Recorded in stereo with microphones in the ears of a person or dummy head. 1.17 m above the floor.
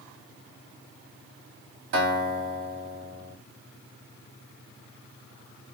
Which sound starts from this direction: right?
A guitar, at 1.9 s.